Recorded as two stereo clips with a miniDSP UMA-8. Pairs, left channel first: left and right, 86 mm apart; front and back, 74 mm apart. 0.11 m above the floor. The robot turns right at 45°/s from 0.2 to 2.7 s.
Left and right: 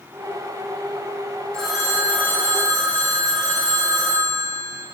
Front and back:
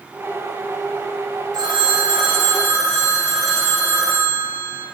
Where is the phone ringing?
170° left, 3 m; by 4.8 s 140° right, 3 m.